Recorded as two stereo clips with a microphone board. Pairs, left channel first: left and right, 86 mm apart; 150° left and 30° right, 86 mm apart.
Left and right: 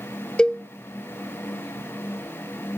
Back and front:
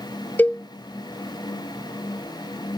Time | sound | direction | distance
0.4 | a cowbell | 145° left | 0.8 m